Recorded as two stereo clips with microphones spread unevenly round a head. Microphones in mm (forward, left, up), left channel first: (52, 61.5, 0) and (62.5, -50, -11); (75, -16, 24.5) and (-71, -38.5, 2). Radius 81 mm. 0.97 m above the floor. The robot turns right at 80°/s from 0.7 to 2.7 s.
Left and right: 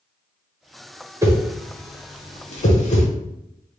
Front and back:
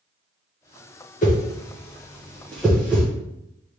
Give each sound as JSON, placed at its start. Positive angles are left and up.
{"t": 1.2, "sound": "a whoosh", "azimuth_deg": -20, "distance_m": 1.1}